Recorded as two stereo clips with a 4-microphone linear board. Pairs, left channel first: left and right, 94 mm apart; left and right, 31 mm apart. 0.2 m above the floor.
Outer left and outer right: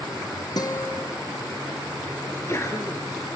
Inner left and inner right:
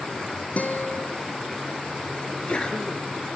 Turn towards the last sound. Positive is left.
turn(degrees=30)  # may be behind; listen again after turning